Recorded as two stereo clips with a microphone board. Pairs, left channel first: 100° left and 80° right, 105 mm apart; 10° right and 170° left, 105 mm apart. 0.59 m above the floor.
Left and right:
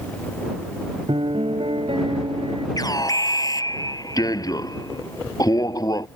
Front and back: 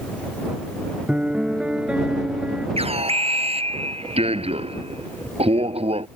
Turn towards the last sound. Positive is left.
turn(degrees=155)